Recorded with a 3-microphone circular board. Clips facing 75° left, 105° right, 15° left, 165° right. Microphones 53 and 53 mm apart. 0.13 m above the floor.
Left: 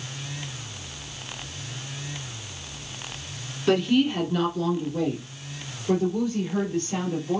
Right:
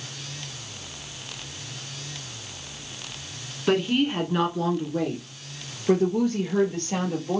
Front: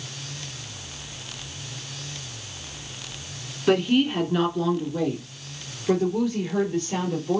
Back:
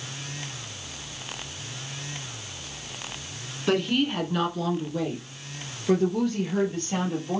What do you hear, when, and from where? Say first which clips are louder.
3.7 s a woman speaking: left 1 dB, front 4 dB; 55° right, 1.2 m; by 7.4 s 70° right, 2.5 m